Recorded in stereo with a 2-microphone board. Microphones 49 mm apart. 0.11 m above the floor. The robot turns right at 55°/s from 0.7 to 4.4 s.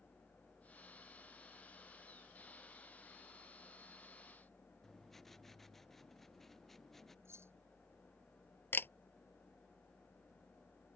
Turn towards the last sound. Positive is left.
turn(degrees=45)  # may be behind; listen again after turning